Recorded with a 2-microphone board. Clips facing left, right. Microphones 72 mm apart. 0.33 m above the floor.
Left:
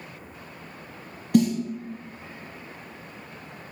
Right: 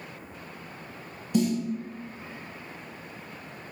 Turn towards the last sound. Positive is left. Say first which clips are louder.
# left 5 dB
turn(degrees=70)  # may be behind; listen again after turning